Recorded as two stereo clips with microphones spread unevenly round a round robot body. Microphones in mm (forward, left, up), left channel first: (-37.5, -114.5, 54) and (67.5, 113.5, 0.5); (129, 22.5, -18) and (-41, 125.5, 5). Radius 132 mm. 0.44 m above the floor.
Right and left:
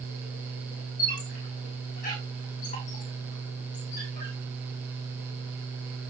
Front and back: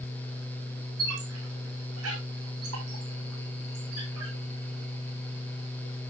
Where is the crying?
I don't hear crying.